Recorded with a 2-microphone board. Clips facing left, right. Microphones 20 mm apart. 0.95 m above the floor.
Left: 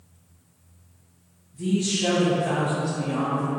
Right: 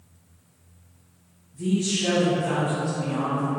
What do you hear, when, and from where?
1.5 s a man speaking: 5° left (ahead or behind), 1.2 m; by 3.5 s 60° left (ahead or behind), 1.4 m